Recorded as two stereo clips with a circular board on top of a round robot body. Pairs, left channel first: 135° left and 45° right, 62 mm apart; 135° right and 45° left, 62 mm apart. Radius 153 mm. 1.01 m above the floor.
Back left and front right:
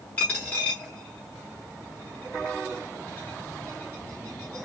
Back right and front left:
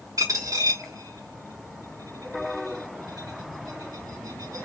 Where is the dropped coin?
70° left, 0.6 m.